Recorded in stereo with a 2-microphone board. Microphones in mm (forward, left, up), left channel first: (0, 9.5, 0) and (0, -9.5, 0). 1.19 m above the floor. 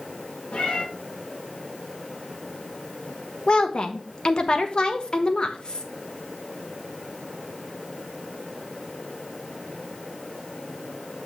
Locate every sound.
0.5 s a cat meowing: 80° left, 4 m
3.5 s a woman speaking: 45° left (ahead or behind), 1.3 m